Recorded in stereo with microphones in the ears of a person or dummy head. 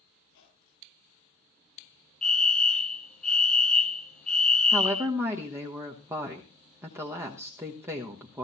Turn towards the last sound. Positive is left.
turn(degrees=-15)  # may be behind; listen again after turning